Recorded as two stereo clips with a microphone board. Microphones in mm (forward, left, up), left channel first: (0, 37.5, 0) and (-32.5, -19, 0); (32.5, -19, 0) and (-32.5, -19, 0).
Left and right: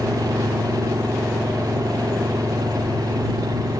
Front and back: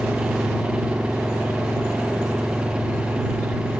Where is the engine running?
105° right.